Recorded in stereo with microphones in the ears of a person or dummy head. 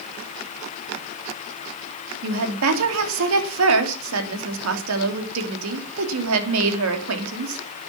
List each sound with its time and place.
2.2 s a woman speaking: 75° right (ahead or behind), 3 m